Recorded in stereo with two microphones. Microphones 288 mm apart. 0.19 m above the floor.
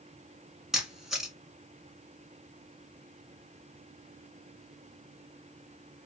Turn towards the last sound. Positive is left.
turn(degrees=0)  # may be behind; listen again after turning